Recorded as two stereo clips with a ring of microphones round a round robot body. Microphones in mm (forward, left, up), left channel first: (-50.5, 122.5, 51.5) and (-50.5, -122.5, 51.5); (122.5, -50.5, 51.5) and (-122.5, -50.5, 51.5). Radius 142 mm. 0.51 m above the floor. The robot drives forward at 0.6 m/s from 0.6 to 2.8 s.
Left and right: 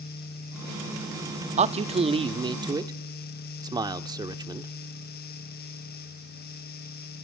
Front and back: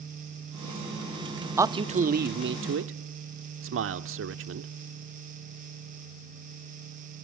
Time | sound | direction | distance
1.6 | a man speaking | 110° right | 0.7 m